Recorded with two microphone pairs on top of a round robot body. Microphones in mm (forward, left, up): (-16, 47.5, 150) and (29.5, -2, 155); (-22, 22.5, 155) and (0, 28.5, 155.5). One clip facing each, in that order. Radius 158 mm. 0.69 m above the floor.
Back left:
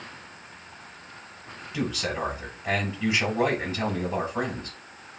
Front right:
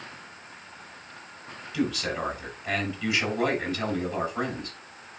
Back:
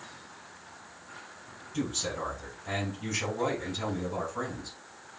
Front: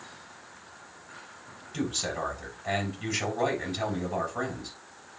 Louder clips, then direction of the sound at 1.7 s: Front right 1 dB, front 1 dB; 65° left.